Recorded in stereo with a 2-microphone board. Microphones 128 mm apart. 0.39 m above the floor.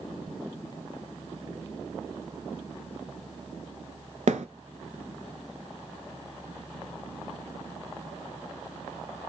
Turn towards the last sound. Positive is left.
turn(degrees=-70)  # may be behind; listen again after turning